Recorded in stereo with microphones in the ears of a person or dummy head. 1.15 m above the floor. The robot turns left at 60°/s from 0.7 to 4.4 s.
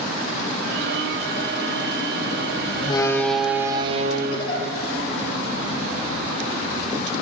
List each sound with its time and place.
2.8 s a door slam: 30° left, 2.5 m; by 4.5 s 65° right, 2.5 m
4.3 s a giggle: 35° left (ahead or behind), 4.5 m; by 4.7 s 25° left (ahead or behind), 4.5 m